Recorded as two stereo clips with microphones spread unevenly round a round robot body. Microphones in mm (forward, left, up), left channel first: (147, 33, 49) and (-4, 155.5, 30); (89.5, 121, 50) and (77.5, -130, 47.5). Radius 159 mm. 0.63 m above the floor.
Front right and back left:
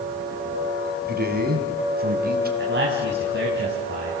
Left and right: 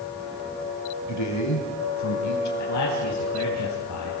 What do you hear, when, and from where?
1.1 s a man speaking: 105° left, 5 m
2.6 s a man speaking: 115° left, 4 m